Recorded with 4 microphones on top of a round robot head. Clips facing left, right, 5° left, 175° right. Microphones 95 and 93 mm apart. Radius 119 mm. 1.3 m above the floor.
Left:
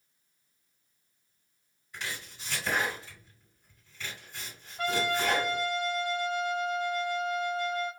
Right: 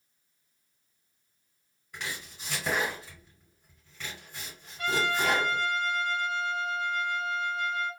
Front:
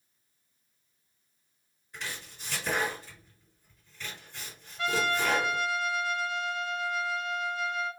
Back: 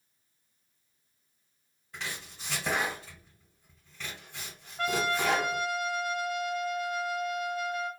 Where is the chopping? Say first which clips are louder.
Right 1 dB, back 1 dB; 135° right, 1.6 m.